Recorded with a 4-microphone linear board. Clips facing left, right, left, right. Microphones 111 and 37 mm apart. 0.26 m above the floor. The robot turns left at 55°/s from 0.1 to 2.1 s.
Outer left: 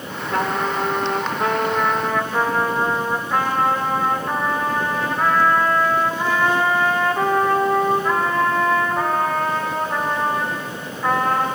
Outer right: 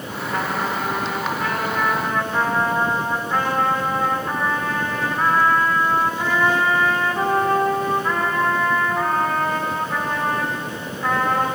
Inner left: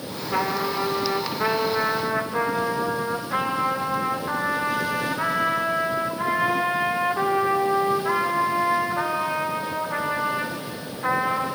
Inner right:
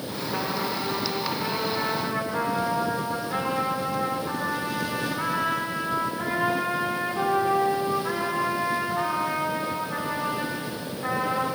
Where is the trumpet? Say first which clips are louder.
Outer left 3 dB, inner left 5 dB; 100° left, 9 m; by 11.5 s 5° left, 9 m.